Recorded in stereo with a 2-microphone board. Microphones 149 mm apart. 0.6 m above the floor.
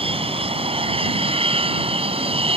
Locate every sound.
0.0 s an aircraft: 40° right (ahead or behind)